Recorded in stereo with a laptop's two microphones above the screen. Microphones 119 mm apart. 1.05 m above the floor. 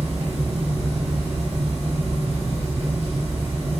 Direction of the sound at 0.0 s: 70° right (ahead or behind).